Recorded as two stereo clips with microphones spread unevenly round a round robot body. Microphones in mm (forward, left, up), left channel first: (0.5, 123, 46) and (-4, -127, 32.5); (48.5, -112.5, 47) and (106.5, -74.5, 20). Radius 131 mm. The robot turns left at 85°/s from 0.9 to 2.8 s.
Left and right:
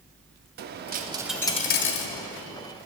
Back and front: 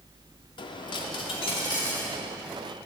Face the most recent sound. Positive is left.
turn(degrees=55)